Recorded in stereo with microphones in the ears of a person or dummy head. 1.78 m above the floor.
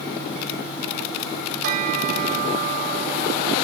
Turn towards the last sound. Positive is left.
turn(degrees=-40)  # may be behind; listen again after turning